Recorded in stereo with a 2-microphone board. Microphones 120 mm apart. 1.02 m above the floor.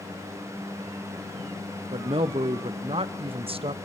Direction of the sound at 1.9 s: 50° right (ahead or behind).